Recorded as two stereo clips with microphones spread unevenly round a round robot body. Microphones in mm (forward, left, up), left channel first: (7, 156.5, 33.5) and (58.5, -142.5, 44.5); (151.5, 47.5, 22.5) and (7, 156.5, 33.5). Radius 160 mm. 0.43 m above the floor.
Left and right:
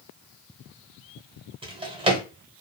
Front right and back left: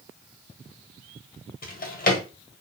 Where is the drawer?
5° right, 1.2 m.